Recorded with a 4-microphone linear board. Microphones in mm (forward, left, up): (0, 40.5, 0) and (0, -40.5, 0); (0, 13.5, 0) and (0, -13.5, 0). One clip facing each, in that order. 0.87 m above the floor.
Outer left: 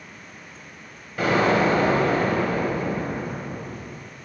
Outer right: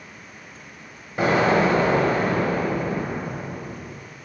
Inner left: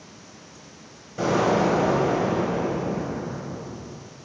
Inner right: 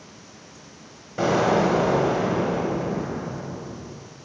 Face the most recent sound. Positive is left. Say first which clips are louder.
# outer right 1 dB, inner right 1 dB
turn(degrees=-20)  # may be behind; listen again after turning